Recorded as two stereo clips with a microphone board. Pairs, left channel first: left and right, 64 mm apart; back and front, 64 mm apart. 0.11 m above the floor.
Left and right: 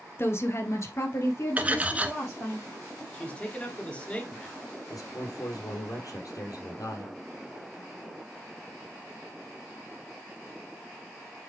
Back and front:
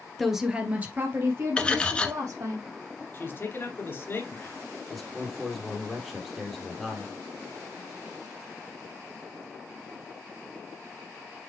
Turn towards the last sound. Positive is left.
turn(degrees=90)